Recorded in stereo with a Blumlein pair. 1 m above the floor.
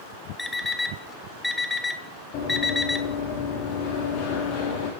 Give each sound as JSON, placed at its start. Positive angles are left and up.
{"t": 0.4, "sound": "an alarm clock", "azimuth_deg": 5, "distance_m": 1.3}
{"t": 2.3, "sound": "running footsteps", "azimuth_deg": 40, "distance_m": 4.5}